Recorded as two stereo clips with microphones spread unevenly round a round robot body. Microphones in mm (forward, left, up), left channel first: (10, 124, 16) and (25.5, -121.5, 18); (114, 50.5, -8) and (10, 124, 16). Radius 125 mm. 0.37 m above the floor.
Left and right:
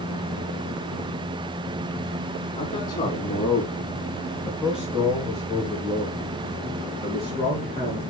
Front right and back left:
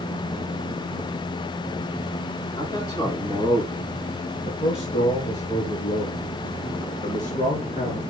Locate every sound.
2.6 s a man speaking: 25° left, 3 m; by 8.0 s 25° right, 4 m